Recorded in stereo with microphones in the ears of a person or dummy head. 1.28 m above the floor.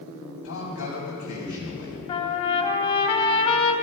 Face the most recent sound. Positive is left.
turn(degrees=35)  # may be behind; listen again after turning